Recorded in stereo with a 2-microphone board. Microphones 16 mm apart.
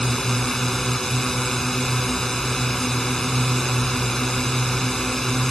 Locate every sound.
0.0 s a drone: 30° left (ahead or behind)